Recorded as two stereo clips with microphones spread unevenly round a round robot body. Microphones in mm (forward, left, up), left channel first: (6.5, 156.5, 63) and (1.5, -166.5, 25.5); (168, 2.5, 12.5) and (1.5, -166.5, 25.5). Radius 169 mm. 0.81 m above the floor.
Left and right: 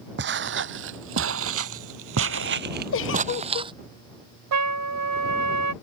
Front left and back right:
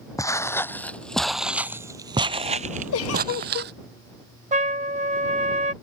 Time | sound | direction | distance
0.2 | footsteps | 30° right | ?
2.9 | a giggle | 35° left | ?
4.5 | a trumpet | 75° right | ?